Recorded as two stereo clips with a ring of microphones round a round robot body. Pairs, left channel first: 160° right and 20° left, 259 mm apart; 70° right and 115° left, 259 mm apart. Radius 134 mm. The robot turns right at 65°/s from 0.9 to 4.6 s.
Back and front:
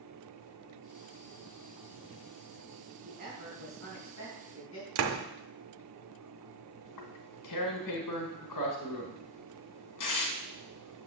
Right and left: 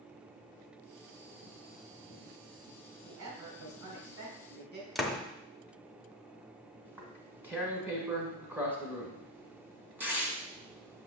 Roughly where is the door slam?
Ahead.